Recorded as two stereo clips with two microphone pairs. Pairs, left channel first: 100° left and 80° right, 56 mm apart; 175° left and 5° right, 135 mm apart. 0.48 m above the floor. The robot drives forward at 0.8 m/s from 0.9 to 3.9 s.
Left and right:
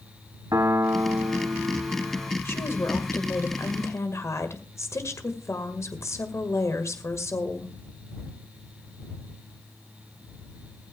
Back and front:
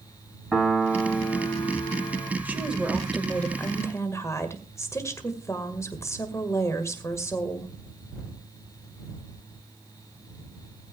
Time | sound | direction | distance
0.5 | a piano | 95° right | 0.8 m
2.5 | a woman speaking | 70° left | 2.0 m